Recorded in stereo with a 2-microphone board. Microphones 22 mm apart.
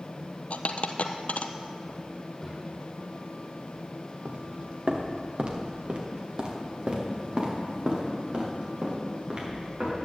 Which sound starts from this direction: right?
Footsteps, at 4.2 s.